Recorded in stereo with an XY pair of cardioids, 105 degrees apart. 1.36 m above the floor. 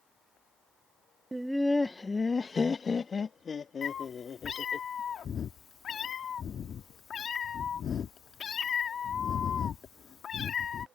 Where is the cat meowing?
50° left.